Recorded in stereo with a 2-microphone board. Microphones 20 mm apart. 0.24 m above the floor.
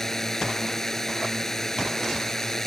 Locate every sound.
0.0 s a drone: 20° left (ahead or behind)